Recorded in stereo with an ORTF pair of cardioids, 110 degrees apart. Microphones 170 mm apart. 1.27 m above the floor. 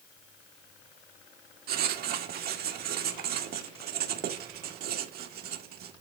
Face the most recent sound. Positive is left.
turn(degrees=-70)